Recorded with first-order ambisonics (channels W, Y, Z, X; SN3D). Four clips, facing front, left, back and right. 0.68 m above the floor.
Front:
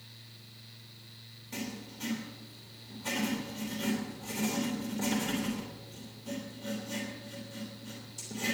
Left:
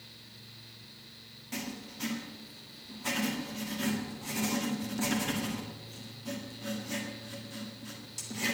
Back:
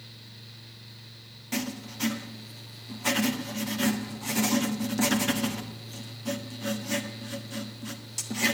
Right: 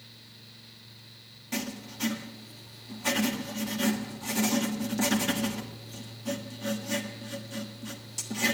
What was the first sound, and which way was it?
Writing, 165° right.